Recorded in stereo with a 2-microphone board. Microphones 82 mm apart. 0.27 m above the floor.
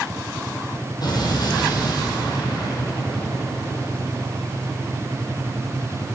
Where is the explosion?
55° left (ahead or behind), 2.5 m.